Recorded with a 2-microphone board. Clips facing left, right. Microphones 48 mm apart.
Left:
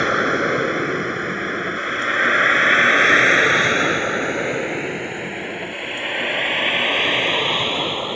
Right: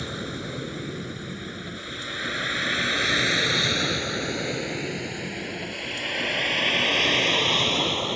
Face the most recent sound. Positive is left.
turn(degrees=20)  # may be behind; listen again after turning